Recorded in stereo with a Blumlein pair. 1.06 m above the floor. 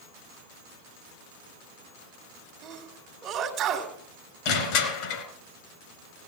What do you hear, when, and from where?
2.6 s a sneeze: 30° right, 2.5 m
4.5 s crushing: 45° left, 3 m